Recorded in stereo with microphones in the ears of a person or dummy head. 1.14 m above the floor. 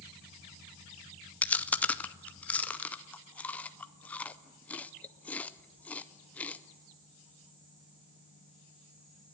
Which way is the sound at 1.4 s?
10° left (ahead or behind).